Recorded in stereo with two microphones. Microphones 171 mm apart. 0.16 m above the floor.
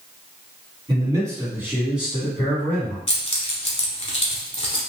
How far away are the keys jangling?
About 0.9 m.